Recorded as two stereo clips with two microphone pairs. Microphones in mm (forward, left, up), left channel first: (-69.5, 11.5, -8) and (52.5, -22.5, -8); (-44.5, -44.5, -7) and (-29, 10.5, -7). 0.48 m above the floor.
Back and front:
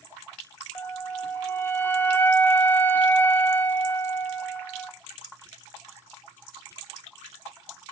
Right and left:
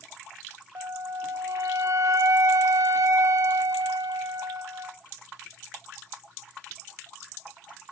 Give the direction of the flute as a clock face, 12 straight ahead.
9 o'clock.